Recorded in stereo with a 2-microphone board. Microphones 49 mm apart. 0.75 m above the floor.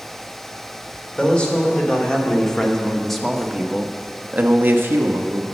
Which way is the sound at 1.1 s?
20° left (ahead or behind).